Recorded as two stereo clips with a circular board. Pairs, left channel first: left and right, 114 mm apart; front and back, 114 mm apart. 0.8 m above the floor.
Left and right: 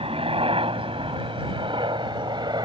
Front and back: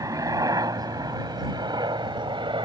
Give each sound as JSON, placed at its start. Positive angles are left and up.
{"t": 0.0, "sound": "a helicopter", "azimuth_deg": -120}